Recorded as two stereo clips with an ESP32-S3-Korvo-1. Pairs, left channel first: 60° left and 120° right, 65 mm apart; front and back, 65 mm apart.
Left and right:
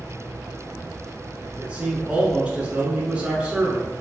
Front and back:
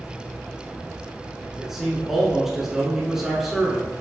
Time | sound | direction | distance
1.6 | a man speaking | 110° right | 1.1 m